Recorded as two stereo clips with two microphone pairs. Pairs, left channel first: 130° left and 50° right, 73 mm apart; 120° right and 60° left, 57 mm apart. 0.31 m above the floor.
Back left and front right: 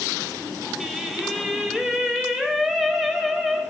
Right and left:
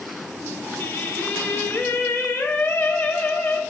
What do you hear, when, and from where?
0.8 s singing: 140° right, 0.7 m